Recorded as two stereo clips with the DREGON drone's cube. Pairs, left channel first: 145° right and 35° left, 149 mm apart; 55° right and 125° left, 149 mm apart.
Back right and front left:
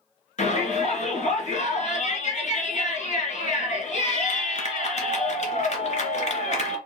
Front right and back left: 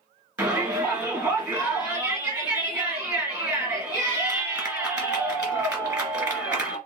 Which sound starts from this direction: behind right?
A shout, at 0.4 s.